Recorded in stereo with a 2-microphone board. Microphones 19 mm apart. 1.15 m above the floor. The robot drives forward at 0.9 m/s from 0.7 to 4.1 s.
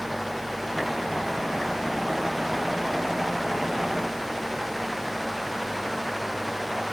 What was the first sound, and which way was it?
Only background noise.